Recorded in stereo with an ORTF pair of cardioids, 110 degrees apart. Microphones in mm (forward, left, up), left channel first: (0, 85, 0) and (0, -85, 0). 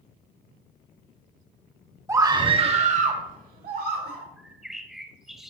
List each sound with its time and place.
2.1 s a scream: 15° right, 1.5 m; by 4.2 s 65° right, 3 m
4.4 s a bird: straight ahead, 1.4 m